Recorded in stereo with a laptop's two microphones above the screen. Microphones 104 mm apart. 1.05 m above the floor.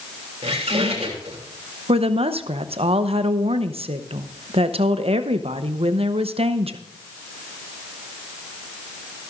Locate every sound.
0.4 s a squeak: 85° right, 3 m
1.9 s a woman speaking: 65° right (ahead or behind), 0.8 m